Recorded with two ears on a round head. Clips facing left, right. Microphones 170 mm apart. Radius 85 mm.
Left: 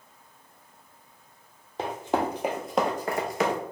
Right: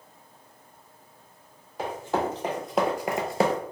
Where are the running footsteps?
20° left (ahead or behind), 1.3 m; by 3.6 s 35° right (ahead or behind), 0.8 m.